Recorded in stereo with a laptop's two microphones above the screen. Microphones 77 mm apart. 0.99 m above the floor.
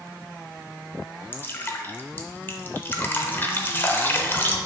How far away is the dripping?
About 0.7 m.